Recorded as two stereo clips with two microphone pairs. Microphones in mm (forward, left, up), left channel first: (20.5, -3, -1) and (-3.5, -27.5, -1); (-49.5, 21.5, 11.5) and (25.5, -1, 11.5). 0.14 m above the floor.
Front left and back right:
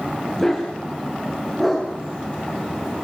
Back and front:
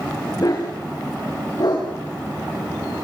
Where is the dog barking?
125° left, 7.5 m; by 2.9 s 140° left, 7.5 m.